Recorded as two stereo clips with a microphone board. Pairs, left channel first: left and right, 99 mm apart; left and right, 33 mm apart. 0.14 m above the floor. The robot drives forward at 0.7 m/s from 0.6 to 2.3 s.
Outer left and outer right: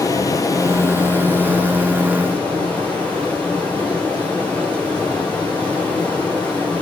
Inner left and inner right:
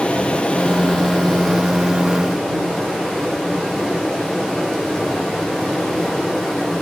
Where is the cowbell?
No cowbell in this recording.